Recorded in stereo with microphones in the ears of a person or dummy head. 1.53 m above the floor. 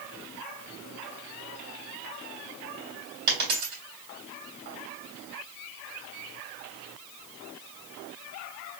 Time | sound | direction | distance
3.3 | a dropped coin | 55° right (ahead or behind) | 2.5 m